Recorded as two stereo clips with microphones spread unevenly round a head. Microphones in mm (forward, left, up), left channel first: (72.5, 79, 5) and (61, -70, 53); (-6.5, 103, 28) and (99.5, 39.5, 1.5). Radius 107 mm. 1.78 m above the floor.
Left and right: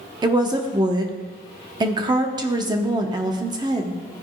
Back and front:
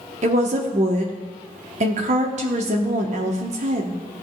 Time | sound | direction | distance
0.2 | a woman speaking | 70° right | 0.9 m